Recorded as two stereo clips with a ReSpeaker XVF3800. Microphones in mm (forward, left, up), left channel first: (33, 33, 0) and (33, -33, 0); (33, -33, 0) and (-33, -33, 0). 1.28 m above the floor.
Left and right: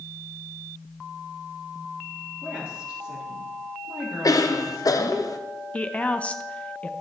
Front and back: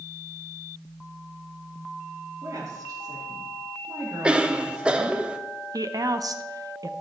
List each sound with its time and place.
2.4 s a woman speaking: 160° right, 3.5 m; by 5.2 s 135° right, 1.3 m
4.2 s a cough: 105° left, 0.8 m
5.7 s a woman speaking: 160° left, 0.8 m